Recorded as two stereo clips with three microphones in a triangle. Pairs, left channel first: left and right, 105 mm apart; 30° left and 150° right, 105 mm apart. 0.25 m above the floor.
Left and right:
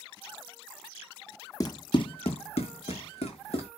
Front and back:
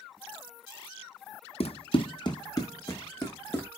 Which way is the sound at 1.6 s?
40° left.